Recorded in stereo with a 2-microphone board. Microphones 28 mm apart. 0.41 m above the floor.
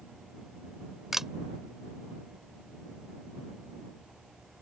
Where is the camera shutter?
10° right (ahead or behind).